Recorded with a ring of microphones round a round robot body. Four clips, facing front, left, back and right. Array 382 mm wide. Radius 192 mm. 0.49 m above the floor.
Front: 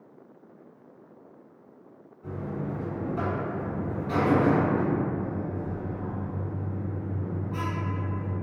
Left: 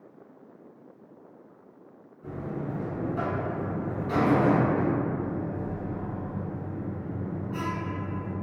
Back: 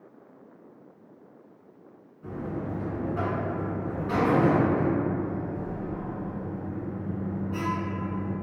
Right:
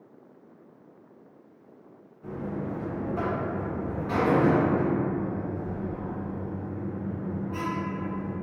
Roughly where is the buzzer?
Behind right.